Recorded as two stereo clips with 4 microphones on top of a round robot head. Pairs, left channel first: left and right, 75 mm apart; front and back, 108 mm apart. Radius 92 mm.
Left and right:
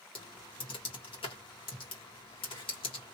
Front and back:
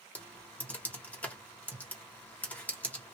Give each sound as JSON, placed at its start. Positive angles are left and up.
{"t": 0.1, "sound": "typing on a keyboard", "azimuth_deg": 75, "distance_m": 1.2}